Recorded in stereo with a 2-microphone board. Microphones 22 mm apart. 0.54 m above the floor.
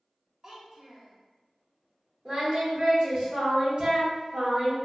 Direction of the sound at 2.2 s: 50° right (ahead or behind).